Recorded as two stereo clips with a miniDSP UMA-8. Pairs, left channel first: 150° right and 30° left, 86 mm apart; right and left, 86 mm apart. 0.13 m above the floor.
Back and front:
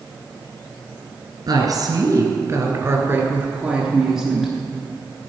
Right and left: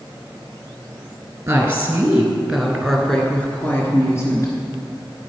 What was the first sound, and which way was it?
A woman speaking, 35° left.